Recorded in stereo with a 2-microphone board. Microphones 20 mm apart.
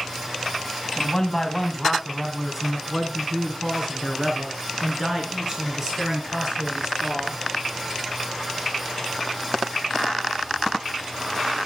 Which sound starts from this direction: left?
A man speaking, at 1.0 s.